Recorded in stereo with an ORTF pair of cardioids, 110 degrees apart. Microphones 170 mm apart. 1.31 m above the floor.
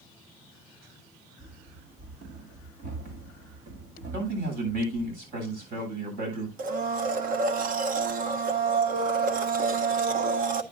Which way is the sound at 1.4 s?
60° right.